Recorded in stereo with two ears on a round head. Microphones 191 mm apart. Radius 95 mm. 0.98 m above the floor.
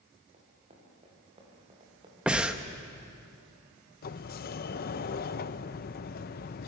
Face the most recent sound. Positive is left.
turn(degrees=45)  # may be behind; listen again after turning